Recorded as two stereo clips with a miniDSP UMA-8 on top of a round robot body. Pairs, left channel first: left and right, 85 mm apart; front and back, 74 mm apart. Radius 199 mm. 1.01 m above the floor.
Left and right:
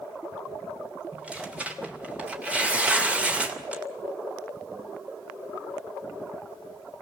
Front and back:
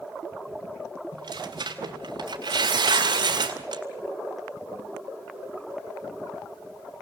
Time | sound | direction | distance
1.1 | tearing paper | 165° right | 2.5 m